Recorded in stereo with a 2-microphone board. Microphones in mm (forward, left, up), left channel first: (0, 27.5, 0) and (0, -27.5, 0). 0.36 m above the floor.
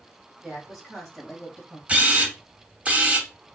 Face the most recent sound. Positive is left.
turn(degrees=-25)  # may be behind; listen again after turning